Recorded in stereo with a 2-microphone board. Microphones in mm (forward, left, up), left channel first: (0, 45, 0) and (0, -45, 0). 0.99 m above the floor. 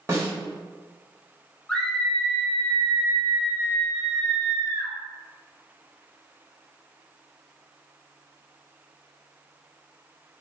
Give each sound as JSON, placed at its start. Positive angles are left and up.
{"t": 0.1, "sound": "a snare drum", "side_deg": -30, "distance_m": 1.2}
{"t": 1.7, "sound": "a scream", "side_deg": 5, "distance_m": 1.1}